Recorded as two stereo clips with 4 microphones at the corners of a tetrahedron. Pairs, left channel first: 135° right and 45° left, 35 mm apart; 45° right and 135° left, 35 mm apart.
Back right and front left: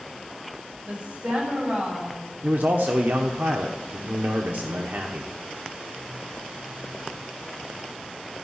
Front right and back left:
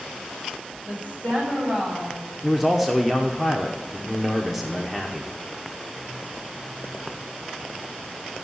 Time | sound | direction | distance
0.8 | a woman speaking | 90° left | 6 m
2.4 | a man speaking | 50° left | 1.0 m